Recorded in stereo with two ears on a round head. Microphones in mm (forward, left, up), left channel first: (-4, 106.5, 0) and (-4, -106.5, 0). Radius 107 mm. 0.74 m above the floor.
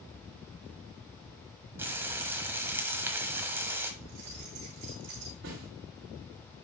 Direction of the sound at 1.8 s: 10° right (ahead or behind).